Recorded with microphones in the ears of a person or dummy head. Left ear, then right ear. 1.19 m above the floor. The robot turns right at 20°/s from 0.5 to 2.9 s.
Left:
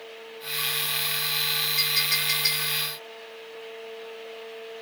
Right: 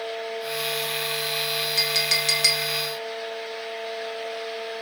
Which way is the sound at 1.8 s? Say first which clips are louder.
Right 4 dB; 35° right (ahead or behind).